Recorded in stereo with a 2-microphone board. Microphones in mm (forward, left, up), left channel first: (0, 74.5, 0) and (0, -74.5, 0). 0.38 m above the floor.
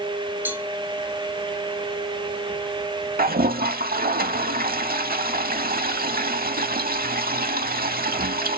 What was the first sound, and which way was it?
A cowbell, 15° right (ahead or behind).